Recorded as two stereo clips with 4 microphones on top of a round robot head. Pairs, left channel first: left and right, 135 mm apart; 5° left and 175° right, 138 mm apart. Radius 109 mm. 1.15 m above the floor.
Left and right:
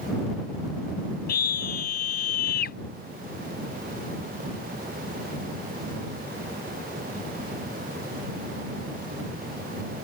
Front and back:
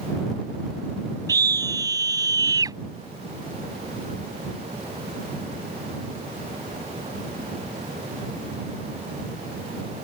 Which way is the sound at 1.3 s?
120° left.